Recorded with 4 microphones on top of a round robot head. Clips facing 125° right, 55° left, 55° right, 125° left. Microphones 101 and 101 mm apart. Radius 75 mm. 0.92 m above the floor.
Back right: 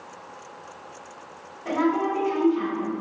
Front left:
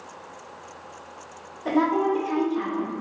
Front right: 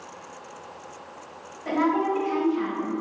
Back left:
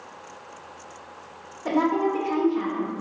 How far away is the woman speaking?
About 1.7 m.